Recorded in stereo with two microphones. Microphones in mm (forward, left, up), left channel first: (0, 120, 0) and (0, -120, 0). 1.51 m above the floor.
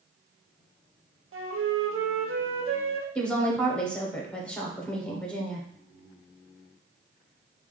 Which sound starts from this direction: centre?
A woman speaking, at 3.1 s.